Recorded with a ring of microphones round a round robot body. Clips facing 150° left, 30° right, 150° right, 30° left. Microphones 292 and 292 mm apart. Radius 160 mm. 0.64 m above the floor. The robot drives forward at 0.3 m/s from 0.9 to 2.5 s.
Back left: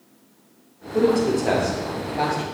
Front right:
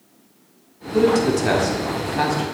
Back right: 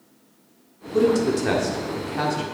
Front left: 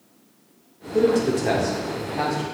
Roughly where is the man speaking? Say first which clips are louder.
Front right 2 dB, even; right.